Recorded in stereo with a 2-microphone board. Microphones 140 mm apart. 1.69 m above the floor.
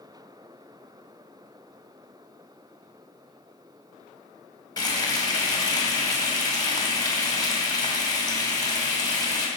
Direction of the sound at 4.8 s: 30° left (ahead or behind).